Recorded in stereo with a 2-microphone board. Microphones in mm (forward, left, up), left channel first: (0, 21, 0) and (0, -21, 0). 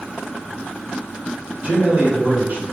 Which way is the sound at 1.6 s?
30° right (ahead or behind).